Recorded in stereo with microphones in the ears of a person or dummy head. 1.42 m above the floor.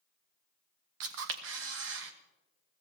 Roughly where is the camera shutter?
Right.